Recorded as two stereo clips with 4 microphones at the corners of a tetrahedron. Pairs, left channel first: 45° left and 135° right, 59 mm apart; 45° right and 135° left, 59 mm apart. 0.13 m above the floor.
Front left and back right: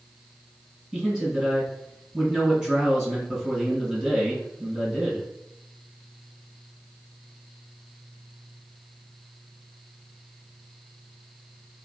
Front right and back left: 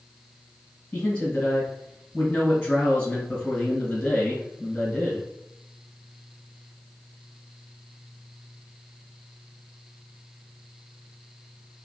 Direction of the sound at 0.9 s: 90° right.